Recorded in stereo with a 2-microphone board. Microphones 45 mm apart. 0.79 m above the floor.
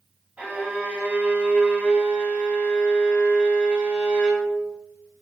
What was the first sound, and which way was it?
A violin, 40° right (ahead or behind).